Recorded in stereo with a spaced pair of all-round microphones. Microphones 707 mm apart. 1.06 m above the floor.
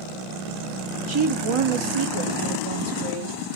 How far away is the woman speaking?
About 0.5 m.